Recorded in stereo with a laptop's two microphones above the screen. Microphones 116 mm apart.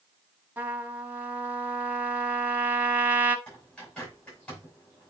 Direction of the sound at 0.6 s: 15° right (ahead or behind).